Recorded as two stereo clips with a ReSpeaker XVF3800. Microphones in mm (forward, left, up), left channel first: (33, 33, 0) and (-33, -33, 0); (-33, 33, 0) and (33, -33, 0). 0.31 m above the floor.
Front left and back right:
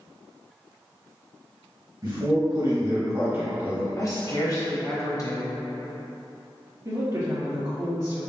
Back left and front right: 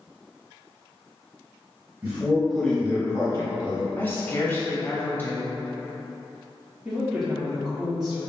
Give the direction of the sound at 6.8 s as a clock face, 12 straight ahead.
4 o'clock.